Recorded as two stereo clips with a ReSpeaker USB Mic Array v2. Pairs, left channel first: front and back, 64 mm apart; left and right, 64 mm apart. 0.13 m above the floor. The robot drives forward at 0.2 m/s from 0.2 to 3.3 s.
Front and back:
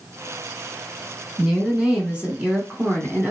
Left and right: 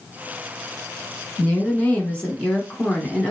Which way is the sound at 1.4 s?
110° left.